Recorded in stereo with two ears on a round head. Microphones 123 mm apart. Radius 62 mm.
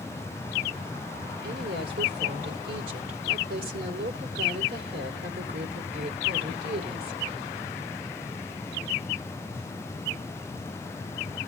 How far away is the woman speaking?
About 2.5 m.